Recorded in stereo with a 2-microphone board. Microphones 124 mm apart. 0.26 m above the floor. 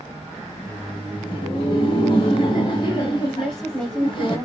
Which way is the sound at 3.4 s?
5° left (ahead or behind).